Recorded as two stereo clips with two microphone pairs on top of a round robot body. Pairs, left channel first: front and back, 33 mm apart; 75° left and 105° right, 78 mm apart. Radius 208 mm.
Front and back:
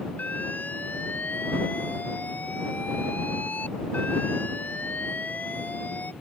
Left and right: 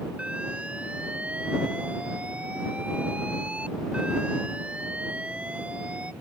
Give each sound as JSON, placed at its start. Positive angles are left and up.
{"t": 0.2, "sound": "an alarm", "azimuth_deg": -25}